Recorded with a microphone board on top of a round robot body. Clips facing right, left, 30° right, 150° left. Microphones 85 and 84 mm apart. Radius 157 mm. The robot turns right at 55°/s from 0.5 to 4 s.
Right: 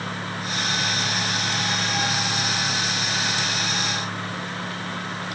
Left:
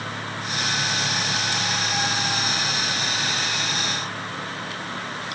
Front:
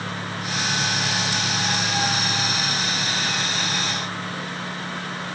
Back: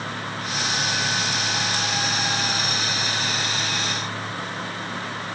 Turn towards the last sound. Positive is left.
No sound to turn to.